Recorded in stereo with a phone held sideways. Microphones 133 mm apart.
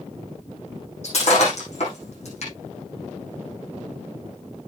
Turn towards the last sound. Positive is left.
turn(degrees=55)  # may be behind; listen again after turning